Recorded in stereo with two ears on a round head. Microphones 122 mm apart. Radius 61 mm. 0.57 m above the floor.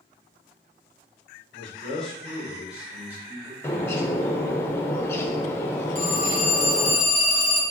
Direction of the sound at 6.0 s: 40° left (ahead or behind).